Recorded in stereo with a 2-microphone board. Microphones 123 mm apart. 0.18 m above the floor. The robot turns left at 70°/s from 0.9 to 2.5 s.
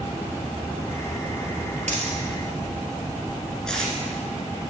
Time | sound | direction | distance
1.9 | a dropped coin | 75° right (ahead or behind) | 1.6 m
3.7 | tape being pulled | 5° left (ahead or behind) | 1.5 m